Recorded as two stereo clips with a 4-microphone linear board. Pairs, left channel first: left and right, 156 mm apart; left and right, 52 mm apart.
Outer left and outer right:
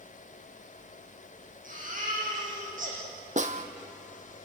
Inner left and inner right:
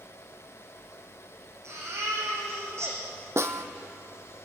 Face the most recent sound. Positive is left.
turn(degrees=-55)  # may be behind; listen again after turning